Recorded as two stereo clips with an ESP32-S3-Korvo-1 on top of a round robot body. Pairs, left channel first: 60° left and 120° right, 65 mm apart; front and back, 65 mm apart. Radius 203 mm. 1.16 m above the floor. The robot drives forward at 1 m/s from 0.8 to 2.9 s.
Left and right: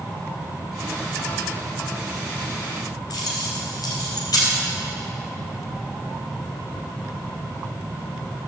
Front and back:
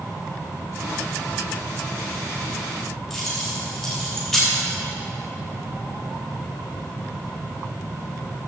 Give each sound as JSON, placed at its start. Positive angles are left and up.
{"t": 3.1, "sound": "keys jangling", "azimuth_deg": 90, "distance_m": 3.0}